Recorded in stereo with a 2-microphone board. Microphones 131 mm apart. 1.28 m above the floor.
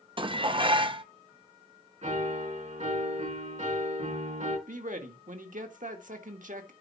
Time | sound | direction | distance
0.2 | dishes clattering | 40° right (ahead or behind) | 0.8 m
2.0 | a piano | 65° right (ahead or behind) | 4.5 m
4.7 | a man speaking | 75° right (ahead or behind) | 1.7 m